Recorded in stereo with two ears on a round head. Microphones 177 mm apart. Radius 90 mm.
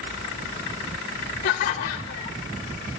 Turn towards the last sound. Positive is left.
turn(degrees=45)  # may be behind; listen again after turning